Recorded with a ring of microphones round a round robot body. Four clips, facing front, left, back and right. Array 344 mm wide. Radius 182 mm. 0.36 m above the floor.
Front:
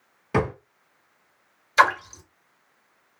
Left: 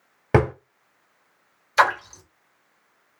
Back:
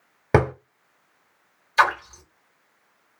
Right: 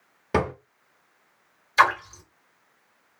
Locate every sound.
0.3 s a drawer: 150° left, 1.0 m
1.8 s a splash: 45° left, 1.9 m